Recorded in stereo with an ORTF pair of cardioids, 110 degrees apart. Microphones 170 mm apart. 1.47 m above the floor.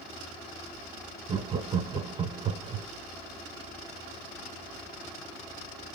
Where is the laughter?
30° right, 0.9 m.